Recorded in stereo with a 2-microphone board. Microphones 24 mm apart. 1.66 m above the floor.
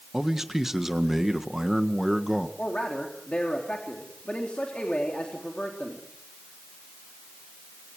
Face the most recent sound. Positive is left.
turn(degrees=55)  # may be behind; listen again after turning